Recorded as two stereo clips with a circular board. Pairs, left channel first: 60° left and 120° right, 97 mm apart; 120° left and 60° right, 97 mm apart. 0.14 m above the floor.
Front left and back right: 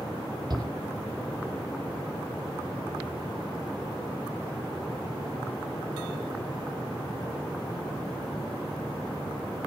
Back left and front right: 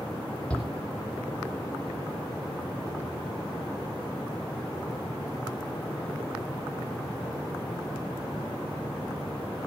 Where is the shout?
160° right, 5 m.